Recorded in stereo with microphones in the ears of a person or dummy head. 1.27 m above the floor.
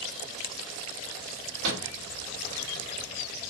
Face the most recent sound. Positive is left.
turn(degrees=-75)  # may be behind; listen again after turning